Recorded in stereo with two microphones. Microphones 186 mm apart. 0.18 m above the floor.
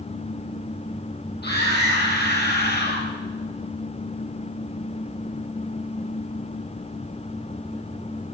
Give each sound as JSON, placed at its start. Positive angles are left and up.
{"t": 1.4, "sound": "a scream", "side_deg": 65, "distance_m": 5.5}